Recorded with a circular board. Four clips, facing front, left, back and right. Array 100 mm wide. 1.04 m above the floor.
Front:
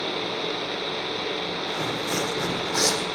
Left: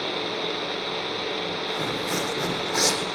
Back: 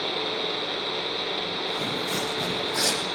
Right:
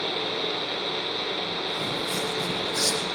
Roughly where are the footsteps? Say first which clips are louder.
Left 2 dB, front 2 dB; ahead left.